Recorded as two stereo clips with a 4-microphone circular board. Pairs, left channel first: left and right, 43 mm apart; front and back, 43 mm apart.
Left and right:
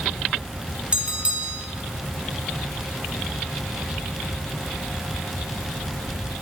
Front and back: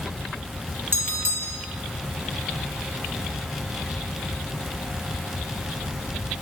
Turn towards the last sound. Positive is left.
turn(degrees=-155)